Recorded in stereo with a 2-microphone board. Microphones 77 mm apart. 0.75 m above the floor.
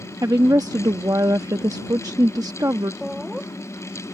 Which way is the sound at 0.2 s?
50° right (ahead or behind).